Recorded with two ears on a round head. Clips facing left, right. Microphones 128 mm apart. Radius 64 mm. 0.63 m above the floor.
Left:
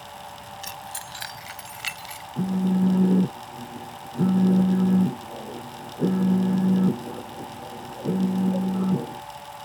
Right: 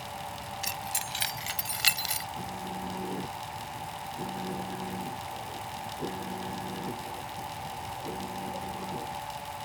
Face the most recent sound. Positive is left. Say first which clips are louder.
# left 18 dB
turn(degrees=70)  # may be behind; listen again after turning